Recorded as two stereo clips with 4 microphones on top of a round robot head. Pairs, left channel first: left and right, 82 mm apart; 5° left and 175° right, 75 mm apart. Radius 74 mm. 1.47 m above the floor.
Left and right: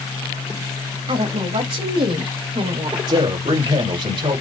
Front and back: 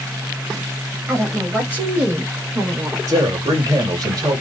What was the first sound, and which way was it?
A woman speaking, 105° right.